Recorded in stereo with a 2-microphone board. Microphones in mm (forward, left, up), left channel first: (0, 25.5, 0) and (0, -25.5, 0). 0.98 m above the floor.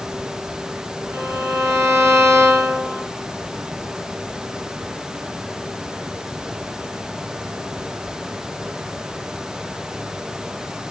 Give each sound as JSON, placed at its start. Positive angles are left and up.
{"t": 1.1, "sound": "a violin", "side_deg": -65, "distance_m": 4.5}